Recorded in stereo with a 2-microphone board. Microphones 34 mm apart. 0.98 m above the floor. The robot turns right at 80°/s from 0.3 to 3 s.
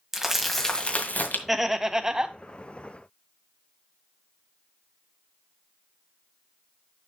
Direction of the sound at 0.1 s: 10° right.